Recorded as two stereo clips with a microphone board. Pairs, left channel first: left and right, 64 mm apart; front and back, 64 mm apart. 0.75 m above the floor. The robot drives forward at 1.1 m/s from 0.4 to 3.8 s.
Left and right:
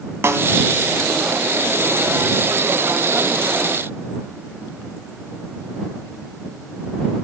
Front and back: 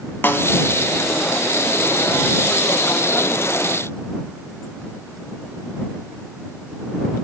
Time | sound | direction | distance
0.2 | a snare drum | 50° right | 1.0 m